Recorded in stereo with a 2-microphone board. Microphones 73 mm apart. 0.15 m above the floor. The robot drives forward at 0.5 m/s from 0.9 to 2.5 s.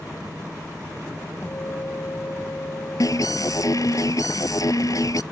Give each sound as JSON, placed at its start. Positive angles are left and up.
{"t": 1.4, "sound": "a guitar", "side_deg": 45}
{"t": 3.0, "sound": "an alarm", "side_deg": 55}